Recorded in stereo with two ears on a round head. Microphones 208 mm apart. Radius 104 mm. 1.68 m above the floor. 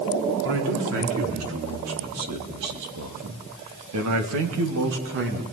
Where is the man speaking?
60° right (ahead or behind), 4.5 m; by 5.4 s 45° right (ahead or behind), 2.5 m.